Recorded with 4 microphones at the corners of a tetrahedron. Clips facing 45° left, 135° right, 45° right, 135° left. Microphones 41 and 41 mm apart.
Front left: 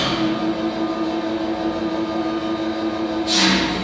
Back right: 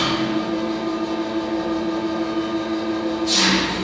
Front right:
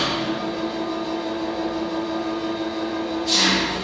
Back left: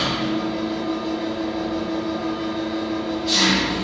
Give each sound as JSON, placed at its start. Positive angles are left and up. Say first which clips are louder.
{"t": 0.0, "sound": "an engine running", "louder": "front left 1 dB, back left 1 dB", "azimuth_deg": 60, "distance_m": 1.0}